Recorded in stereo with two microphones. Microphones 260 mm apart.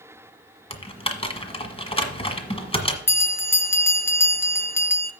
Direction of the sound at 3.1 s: 10° left (ahead or behind).